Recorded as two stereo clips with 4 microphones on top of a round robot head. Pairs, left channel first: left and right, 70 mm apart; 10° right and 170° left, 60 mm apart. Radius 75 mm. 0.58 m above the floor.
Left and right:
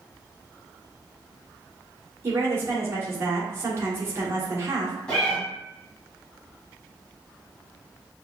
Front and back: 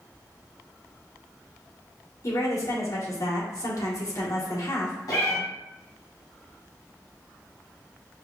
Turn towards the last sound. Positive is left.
turn(degrees=10)